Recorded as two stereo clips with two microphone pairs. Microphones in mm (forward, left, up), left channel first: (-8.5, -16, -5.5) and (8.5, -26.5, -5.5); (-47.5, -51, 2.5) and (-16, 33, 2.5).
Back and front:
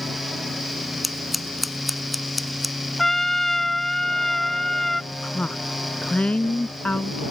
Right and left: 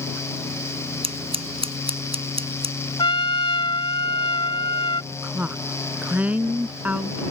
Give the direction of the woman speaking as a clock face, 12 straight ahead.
7 o'clock.